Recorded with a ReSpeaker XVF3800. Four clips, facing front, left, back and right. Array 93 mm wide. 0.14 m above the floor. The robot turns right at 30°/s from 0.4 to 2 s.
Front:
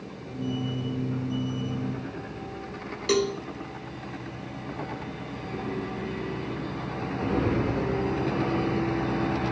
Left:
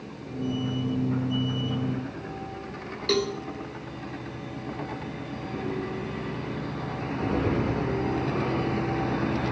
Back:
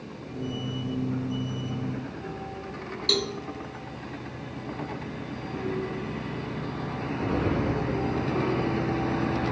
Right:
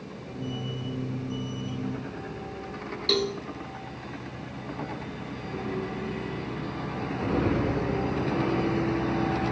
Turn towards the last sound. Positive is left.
turn(degrees=30)